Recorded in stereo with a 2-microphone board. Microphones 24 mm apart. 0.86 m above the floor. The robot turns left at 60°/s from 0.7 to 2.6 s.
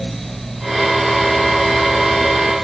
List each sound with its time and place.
Only background noise.